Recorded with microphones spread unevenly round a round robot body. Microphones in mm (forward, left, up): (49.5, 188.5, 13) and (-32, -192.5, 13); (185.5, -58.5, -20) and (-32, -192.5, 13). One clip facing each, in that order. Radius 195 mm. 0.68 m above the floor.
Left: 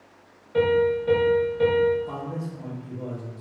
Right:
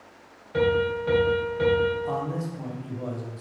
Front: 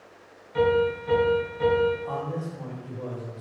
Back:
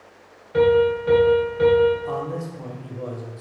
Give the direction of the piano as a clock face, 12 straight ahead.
6 o'clock.